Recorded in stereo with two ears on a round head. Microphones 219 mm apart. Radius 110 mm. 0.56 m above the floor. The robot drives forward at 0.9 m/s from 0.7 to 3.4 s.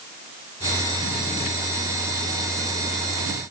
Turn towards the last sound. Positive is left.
No sound to turn to.